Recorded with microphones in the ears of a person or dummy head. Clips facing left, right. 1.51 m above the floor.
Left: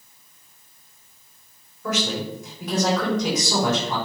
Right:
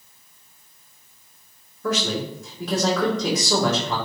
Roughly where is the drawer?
I don't hear a drawer.